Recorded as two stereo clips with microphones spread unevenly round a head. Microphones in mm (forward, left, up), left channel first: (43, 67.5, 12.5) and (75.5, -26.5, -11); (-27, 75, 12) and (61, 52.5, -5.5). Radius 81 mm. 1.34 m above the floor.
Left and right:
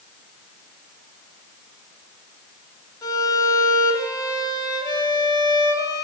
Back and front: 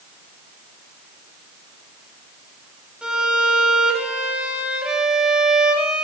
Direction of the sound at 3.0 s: 70° left.